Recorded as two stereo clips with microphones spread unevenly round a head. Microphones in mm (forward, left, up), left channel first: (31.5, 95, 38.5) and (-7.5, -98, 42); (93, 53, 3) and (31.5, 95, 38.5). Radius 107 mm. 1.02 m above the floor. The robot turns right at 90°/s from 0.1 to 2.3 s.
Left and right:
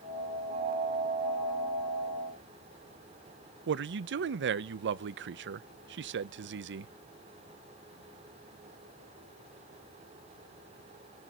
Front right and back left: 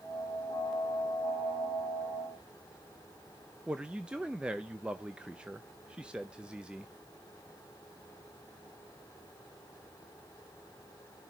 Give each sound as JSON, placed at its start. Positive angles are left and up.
{"t": 3.7, "sound": "a man speaking", "azimuth_deg": -120, "distance_m": 0.6}